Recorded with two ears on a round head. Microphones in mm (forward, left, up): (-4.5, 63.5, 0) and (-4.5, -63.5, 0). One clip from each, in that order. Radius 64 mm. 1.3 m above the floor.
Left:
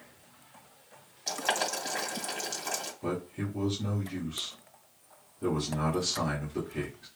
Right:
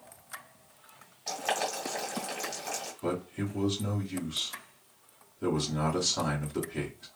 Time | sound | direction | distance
1.3 | boiling | 25° left (ahead or behind) | 2.5 m
3.0 | a man speaking | 35° right (ahead or behind) | 1.7 m